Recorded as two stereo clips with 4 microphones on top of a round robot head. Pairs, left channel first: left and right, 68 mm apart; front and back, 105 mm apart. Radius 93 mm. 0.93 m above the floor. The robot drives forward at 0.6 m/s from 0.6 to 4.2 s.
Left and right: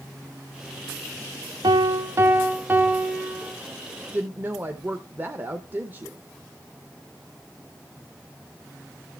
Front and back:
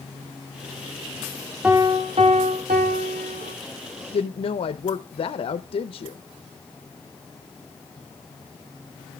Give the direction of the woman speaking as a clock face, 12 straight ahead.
1 o'clock.